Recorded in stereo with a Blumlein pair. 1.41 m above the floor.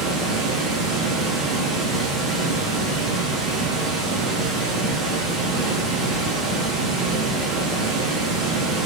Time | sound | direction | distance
0.0 | running water | 15° right | 0.8 m